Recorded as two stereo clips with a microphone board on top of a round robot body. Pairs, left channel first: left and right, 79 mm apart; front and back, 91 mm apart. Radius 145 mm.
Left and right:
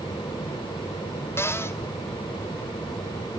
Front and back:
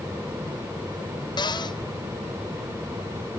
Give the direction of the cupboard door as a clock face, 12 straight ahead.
11 o'clock.